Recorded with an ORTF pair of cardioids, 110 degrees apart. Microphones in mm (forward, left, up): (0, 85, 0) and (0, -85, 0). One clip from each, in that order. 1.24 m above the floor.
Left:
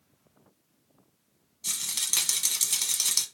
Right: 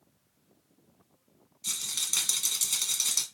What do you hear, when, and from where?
1.6 s a rattle: 15° left, 0.9 m